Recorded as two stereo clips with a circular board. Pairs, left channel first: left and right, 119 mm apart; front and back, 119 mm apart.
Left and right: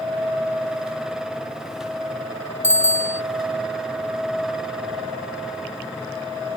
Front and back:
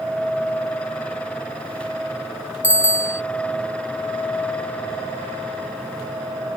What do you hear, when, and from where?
2.6 s a bicycle bell: 105° right